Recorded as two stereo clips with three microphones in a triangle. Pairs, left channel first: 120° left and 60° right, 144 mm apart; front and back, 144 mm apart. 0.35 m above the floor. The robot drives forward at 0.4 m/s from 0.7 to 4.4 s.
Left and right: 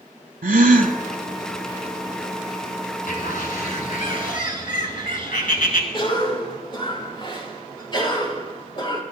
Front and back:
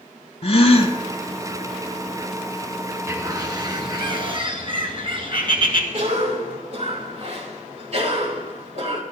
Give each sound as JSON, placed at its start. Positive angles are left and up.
{"t": 0.4, "sound": "a gasp", "azimuth_deg": -45, "distance_m": 0.8}
{"t": 3.1, "sound": "a bird", "azimuth_deg": 110, "distance_m": 1.3}
{"t": 5.9, "sound": "a cough", "azimuth_deg": 165, "distance_m": 2.5}